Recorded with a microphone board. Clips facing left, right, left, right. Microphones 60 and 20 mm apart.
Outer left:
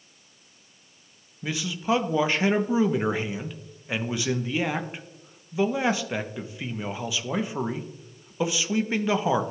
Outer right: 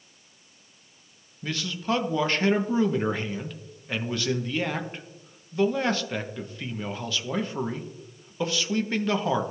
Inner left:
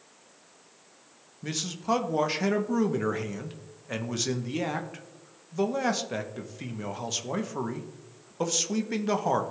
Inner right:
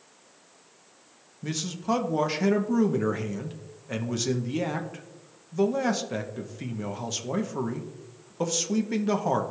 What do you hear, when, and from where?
1.4 s a man speaking: 10° left (ahead or behind), 0.7 m